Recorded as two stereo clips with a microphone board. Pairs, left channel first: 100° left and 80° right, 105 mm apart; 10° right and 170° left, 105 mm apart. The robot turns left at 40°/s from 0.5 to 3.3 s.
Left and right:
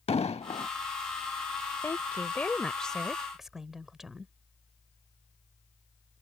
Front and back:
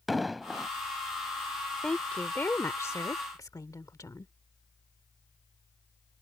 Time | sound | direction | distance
0.1 | an explosion | 80° left | ?
1.8 | a woman speaking | 65° left | ?